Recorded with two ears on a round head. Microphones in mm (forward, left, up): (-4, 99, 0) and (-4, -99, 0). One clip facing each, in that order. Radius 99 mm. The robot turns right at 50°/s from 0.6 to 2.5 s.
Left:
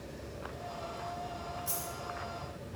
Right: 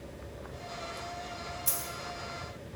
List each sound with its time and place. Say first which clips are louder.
1.7 s a dropped coin: even; 45° right (ahead or behind), 1.7 m; by 1.9 s 55° right (ahead or behind), 1.7 m